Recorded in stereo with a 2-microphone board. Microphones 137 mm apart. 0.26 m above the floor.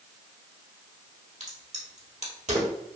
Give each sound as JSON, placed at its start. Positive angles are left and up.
{"t": 1.4, "sound": "a crack", "side_deg": -60, "distance_m": 1.6}